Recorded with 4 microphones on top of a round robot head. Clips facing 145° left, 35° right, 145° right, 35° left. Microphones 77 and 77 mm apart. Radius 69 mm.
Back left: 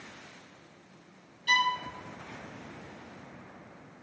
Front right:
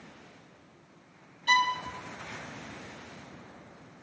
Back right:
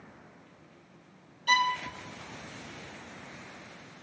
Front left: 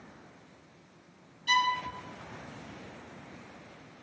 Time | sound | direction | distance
1.5 | a violin | 95° right | 0.6 m